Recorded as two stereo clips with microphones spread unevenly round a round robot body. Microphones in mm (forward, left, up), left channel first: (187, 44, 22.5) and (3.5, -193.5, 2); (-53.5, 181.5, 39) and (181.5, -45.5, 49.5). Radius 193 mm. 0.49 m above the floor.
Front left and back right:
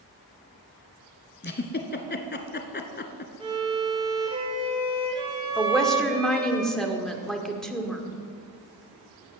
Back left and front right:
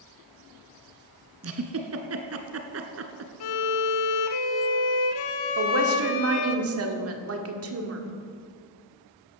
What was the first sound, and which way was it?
A giggle, straight ahead.